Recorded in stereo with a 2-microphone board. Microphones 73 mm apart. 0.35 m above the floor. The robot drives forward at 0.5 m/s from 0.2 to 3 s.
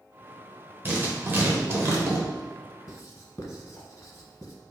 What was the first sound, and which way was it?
Writing, 25° right (ahead or behind).